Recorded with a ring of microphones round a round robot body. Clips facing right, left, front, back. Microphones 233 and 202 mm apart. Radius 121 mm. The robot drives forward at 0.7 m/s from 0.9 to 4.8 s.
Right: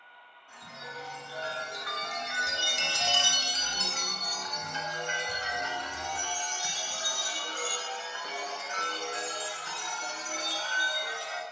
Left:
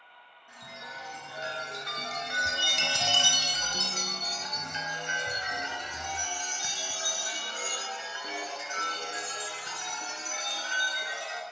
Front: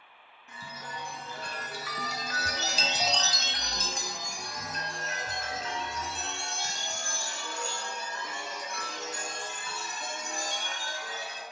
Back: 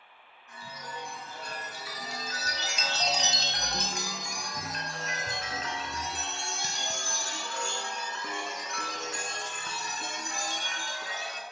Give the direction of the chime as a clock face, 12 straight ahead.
12 o'clock.